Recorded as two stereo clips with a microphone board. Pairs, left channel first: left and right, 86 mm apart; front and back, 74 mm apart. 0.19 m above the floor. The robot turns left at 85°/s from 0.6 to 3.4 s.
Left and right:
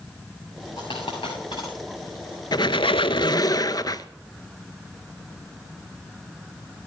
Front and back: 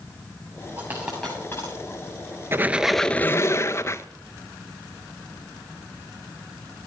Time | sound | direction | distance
0.8 | a dropped coin | 125° left | 7 m
2.5 | a squeak | 125° left | 0.6 m